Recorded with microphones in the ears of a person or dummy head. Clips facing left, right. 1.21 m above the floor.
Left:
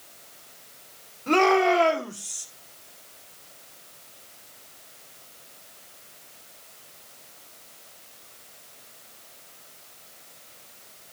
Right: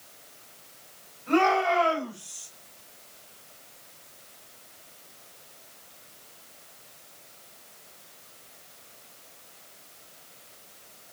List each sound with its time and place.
1.3 s a shout: 75° left (ahead or behind), 4.5 m; by 2.5 s 80° left, 3.5 m